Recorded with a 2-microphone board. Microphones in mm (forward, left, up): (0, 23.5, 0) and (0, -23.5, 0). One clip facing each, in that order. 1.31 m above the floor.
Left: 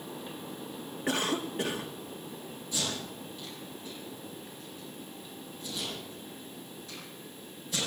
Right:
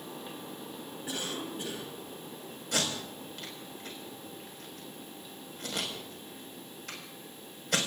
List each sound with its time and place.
1.1 s a cough: 70° left (ahead or behind), 1.7 m
2.7 s tape being pulled: 70° right (ahead or behind), 5.5 m